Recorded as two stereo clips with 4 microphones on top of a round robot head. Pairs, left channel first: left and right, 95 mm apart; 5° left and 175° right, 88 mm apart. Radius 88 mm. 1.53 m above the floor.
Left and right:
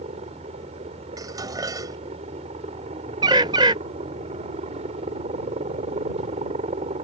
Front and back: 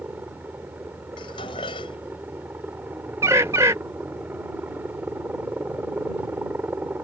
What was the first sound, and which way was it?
A helicopter, 100° right.